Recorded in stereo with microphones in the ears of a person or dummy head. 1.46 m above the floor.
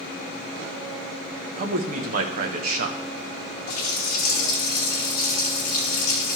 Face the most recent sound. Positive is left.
turn(degrees=60)  # may be behind; listen again after turning